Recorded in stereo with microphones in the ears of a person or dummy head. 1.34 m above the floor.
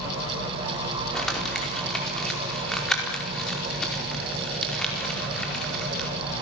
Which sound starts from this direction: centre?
Crumpling, at 1.1 s.